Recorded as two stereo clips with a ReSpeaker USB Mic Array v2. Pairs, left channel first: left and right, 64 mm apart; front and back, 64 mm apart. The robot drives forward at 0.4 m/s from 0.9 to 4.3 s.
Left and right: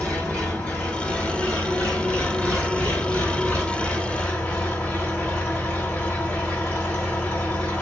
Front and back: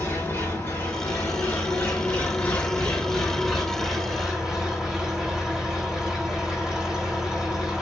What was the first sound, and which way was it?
An engine running, 20° left.